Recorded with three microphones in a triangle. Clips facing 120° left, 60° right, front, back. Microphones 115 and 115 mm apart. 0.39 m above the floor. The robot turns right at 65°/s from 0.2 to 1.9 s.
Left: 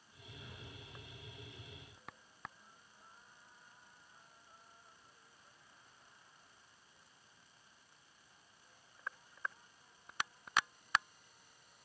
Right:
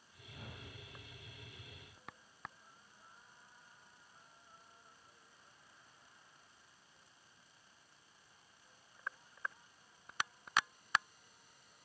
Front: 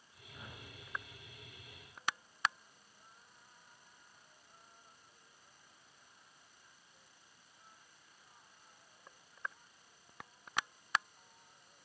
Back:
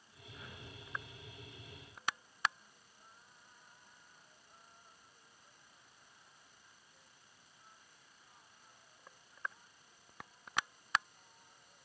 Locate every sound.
0.3 s a whoosh: 80° right, 1.3 m; by 0.8 s 50° right, 1.3 m